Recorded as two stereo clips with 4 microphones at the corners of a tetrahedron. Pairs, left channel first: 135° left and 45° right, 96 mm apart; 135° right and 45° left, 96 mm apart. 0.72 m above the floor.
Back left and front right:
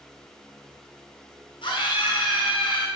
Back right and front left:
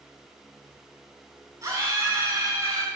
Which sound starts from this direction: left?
A scream, at 1.6 s.